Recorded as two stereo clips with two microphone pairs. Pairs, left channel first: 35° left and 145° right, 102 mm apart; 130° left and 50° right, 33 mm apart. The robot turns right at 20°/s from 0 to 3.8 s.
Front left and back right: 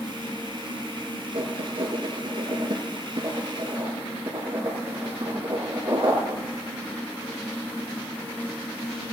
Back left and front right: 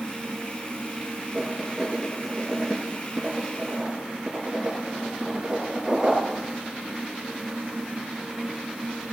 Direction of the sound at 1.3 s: 165° right.